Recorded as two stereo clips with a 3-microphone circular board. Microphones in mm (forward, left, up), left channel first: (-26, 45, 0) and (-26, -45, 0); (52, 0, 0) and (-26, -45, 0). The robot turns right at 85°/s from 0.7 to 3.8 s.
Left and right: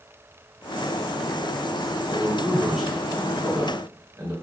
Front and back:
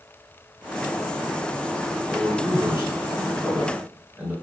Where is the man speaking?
130° left, 1.3 m; by 4.3 s 85° right, 1.3 m.